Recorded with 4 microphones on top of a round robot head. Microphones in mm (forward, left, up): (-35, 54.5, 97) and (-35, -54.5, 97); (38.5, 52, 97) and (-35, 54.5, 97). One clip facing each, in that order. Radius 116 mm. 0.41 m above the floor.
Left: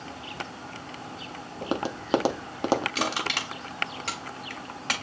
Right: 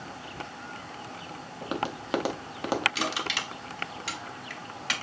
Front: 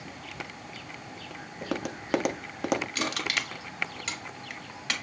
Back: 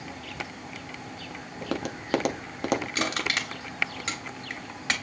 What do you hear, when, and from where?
1.6 s tapping: 85° left, 0.7 m
3.0 s crushing: 130° left, 2.0 m